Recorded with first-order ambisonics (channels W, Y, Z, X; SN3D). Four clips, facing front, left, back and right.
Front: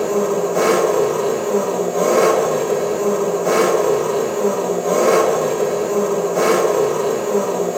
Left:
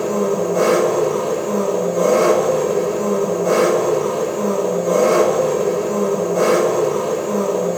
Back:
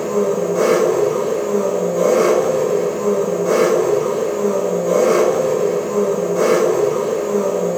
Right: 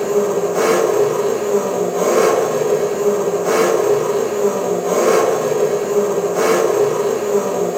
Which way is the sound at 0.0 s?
55° right.